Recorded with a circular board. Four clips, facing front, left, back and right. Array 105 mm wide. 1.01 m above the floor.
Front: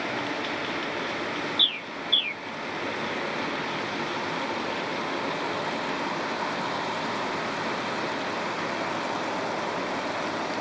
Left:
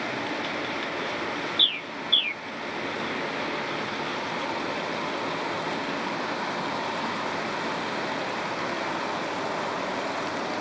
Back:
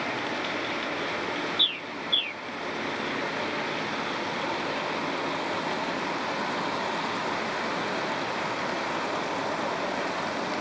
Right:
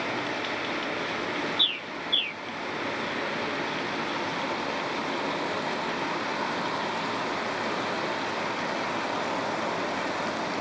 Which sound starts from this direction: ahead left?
A bird, at 1.6 s.